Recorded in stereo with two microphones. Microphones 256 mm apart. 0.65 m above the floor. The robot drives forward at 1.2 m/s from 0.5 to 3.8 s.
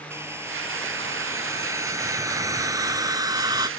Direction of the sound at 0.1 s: 10° right (ahead or behind).